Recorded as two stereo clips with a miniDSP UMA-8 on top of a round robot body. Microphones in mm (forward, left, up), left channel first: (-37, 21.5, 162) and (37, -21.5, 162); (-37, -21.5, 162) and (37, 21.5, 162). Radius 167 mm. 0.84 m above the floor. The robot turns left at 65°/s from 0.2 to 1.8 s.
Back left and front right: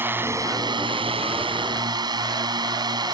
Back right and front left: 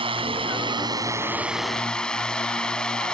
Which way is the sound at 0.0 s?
35° left.